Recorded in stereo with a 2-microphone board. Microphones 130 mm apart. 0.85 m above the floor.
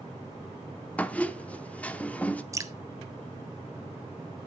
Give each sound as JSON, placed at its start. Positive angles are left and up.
{"t": 1.0, "sound": "a squeak", "side_deg": 10, "distance_m": 0.5}
{"t": 2.5, "sound": "dripping", "side_deg": -25, "distance_m": 0.6}